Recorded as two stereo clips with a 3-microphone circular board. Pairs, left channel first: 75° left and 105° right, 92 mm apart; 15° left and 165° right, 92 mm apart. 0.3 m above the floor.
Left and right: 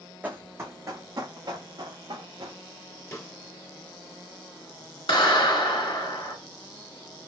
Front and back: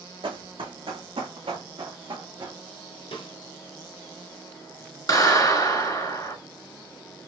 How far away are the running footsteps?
About 0.9 m.